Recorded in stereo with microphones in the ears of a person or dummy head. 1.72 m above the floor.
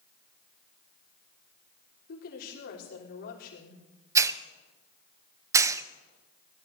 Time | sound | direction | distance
2.1 | a woman speaking | 65° left (ahead or behind) | 4.5 m
4.2 | a hiss | 15° right (ahead or behind) | 0.6 m